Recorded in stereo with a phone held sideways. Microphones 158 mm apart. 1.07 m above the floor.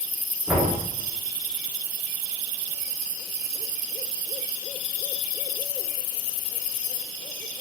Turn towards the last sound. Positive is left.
turn(degrees=-5)  # may be behind; listen again after turning